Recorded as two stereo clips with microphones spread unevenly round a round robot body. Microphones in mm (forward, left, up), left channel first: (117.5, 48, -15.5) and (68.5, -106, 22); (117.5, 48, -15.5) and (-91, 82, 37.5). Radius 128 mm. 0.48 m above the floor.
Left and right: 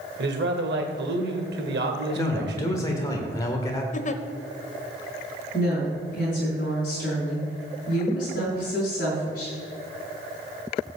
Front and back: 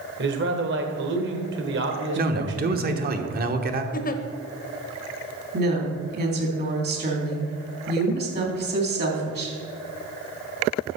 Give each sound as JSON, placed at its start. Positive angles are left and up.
{"t": 0.2, "sound": "a man speaking", "azimuth_deg": -140, "distance_m": 1.5}
{"t": 2.1, "sound": "a man speaking", "azimuth_deg": 125, "distance_m": 1.3}
{"t": 3.9, "sound": "a giggle", "azimuth_deg": 35, "distance_m": 0.9}
{"t": 5.5, "sound": "a woman speaking", "azimuth_deg": 125, "distance_m": 3.5}